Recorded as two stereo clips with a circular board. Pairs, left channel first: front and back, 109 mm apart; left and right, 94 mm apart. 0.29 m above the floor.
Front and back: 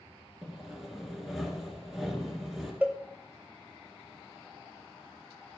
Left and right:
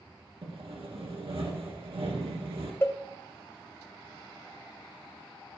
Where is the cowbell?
120° left, 0.9 m.